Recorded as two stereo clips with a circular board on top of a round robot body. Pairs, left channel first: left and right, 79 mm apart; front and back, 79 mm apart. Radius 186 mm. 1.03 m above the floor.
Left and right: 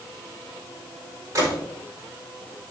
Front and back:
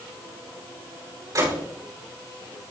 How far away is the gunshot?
About 4.5 m.